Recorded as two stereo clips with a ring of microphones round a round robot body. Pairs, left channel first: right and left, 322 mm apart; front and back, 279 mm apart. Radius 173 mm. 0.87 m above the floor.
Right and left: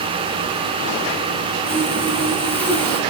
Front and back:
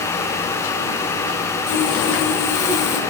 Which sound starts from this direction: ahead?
Sawing, at 1.7 s.